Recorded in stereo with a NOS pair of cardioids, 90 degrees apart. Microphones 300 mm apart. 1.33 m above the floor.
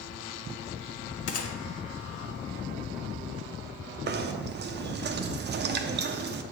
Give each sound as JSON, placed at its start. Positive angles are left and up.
{"t": 1.3, "sound": "a gunshot", "azimuth_deg": 55, "distance_m": 0.7}
{"t": 4.1, "sound": "knocking", "azimuth_deg": -35, "distance_m": 0.6}